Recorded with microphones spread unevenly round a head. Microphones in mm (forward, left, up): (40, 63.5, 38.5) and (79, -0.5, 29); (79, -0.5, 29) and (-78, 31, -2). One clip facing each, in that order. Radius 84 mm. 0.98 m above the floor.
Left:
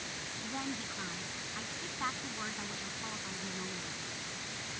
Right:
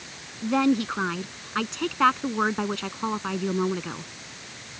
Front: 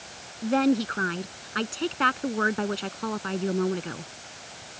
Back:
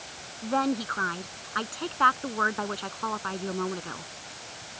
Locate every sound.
0.4 s a woman speaking: 80° right